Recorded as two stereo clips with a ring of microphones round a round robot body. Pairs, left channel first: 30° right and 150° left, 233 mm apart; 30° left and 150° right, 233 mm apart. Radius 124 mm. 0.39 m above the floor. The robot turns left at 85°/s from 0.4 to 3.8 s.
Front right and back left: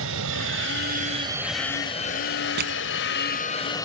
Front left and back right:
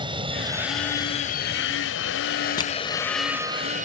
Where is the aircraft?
145° left; by 3.9 s 100° right.